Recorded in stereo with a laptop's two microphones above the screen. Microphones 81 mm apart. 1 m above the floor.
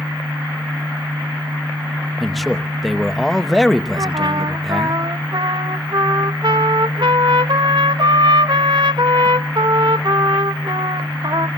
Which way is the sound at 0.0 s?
60° right (ahead or behind).